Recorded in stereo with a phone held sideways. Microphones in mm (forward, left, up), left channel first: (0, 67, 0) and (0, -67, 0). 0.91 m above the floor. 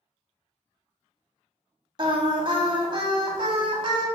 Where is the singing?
35° right (ahead or behind), 0.6 m.